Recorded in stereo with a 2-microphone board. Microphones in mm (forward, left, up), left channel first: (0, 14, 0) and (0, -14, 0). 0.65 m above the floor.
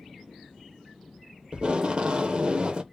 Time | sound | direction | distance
1.5 | tape being pulled | 30° right (ahead or behind) | 0.5 m